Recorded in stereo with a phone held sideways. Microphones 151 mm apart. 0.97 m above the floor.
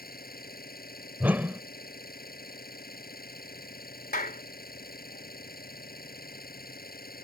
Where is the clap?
80° left.